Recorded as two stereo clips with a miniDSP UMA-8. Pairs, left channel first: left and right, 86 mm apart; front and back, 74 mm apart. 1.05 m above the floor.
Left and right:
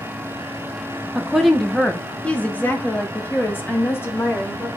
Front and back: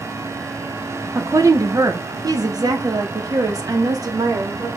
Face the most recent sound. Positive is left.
turn(degrees=150)